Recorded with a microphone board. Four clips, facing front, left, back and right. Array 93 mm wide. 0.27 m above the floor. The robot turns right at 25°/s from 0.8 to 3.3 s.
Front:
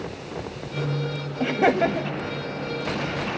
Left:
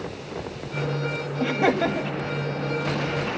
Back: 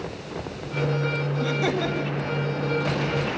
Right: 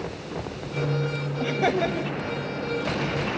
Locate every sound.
1.4 s laughter: straight ahead, 1.8 m; by 2.2 s 20° left, 1.8 m